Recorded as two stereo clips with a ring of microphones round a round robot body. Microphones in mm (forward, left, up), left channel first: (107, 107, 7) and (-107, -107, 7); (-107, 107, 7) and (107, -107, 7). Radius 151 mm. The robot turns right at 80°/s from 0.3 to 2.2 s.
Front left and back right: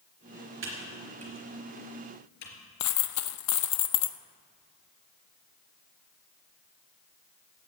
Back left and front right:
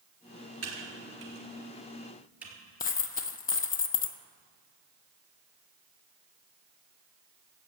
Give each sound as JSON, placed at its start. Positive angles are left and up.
{"t": 0.6, "sound": "typing on a keyboard", "azimuth_deg": -85, "distance_m": 3.5}
{"t": 2.8, "sound": "a dropped coin", "azimuth_deg": 75, "distance_m": 0.8}